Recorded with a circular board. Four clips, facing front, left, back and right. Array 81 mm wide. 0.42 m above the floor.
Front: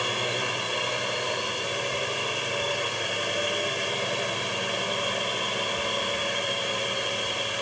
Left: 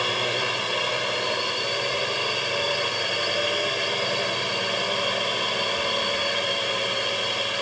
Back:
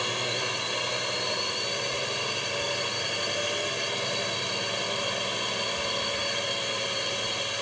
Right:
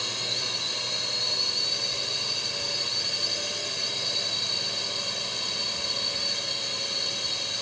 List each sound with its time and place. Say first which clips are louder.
0.0 s a drone: left 11 dB, front 2 dB; 80° left